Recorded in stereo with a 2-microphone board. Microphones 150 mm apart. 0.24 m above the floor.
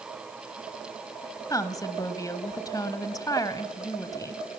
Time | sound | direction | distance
1.5 | a woman speaking | 25° left (ahead or behind) | 1.2 m